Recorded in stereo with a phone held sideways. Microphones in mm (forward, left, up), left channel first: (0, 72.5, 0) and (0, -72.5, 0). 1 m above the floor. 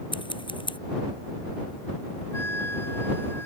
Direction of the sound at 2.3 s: 15° left (ahead or behind).